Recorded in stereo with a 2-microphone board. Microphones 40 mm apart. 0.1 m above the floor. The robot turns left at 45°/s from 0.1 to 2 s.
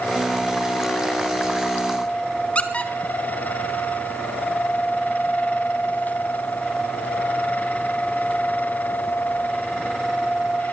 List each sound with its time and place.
2.5 s a squeak: 35° left (ahead or behind), 1.7 m